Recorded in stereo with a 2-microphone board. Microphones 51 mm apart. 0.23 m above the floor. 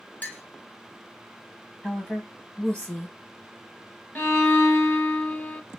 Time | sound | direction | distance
0.2 | a clink | 35° left (ahead or behind) | 0.6 m
1.8 | a woman speaking | 25° left (ahead or behind) | 1.5 m
4.2 | a violin | 35° left (ahead or behind) | 0.8 m